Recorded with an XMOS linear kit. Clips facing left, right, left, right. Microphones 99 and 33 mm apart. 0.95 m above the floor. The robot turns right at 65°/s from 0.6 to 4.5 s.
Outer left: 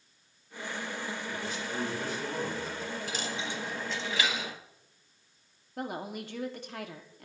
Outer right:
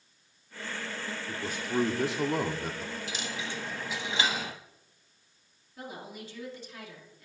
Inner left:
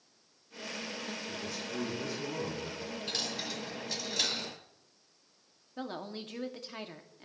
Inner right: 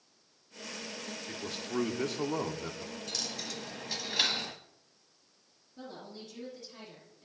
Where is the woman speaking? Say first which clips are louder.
Outer left 6 dB, inner left 6 dB; 60° left (ahead or behind), 1.9 m.